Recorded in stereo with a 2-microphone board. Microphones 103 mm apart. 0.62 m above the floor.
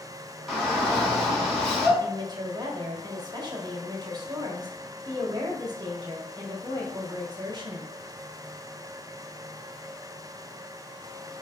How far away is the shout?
About 1.9 m.